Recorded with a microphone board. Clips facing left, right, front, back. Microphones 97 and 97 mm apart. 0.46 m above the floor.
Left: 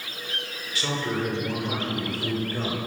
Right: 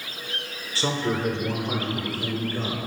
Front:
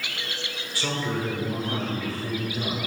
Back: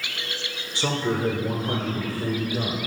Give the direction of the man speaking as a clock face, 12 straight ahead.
4 o'clock.